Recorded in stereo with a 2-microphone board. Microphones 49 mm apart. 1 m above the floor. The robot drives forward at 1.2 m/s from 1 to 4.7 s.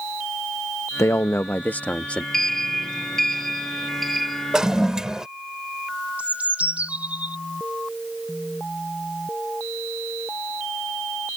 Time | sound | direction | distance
1.0 | a man speaking | 70° left (ahead or behind) | ?
2.3 | a sliding door | 5° left (ahead or behind) | ?
4.5 | a toilet flushing | 15° right (ahead or behind) | ?
6.2 | a bird | 30° right (ahead or behind) | ?